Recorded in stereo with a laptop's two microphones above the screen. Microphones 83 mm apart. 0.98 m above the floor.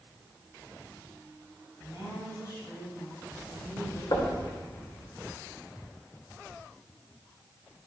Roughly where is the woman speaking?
Left.